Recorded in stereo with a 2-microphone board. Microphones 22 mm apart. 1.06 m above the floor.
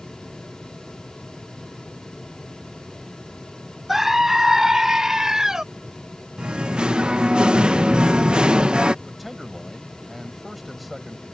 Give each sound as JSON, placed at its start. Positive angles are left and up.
{"t": 3.9, "sound": "a scream", "side_deg": -10}
{"t": 6.4, "sound": "singing", "side_deg": -40}
{"t": 9.1, "sound": "a man speaking", "side_deg": -5}